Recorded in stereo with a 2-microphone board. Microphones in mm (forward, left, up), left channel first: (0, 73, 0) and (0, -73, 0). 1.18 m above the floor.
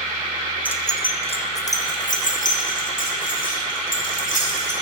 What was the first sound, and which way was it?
Keys jangling, 10° left (ahead or behind).